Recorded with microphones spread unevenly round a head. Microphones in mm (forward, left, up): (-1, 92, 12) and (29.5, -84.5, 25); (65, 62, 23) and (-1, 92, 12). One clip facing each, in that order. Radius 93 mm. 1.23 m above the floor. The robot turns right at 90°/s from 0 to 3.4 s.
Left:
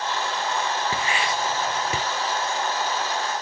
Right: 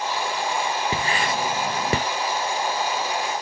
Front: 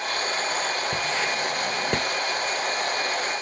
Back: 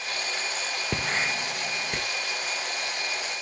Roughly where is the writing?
Behind right.